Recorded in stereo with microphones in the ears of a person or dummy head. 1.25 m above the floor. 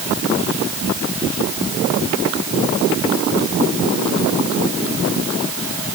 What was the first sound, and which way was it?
Only background noise.